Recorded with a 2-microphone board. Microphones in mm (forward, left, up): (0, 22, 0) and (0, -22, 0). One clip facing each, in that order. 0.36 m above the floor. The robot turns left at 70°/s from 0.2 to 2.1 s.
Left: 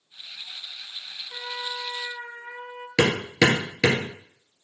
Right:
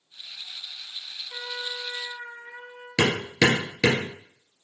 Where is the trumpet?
Straight behind, 1.3 m; by 2.9 s 120° left, 1.3 m.